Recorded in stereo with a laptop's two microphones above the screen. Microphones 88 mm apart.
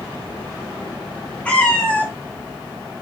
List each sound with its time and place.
1.4 s a cat meowing: 15° left (ahead or behind), 0.7 m